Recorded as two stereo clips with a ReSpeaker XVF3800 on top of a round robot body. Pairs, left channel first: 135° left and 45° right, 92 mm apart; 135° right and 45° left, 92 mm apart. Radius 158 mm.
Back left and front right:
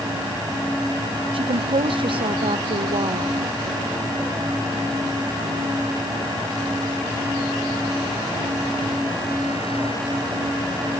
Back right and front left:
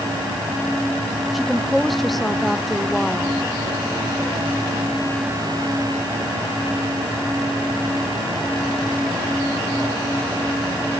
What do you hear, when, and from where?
1.3 s a woman speaking: 45° right